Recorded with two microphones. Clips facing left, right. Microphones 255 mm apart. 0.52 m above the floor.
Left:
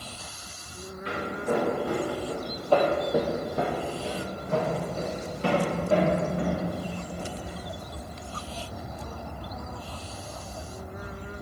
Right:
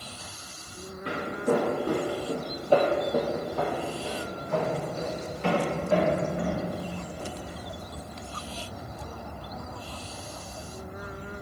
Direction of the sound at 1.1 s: 55° right (ahead or behind).